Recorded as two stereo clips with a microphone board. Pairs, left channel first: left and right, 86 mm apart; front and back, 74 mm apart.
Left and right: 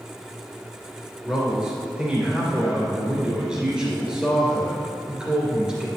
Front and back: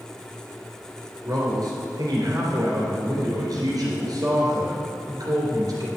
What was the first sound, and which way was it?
A man speaking, 170° right.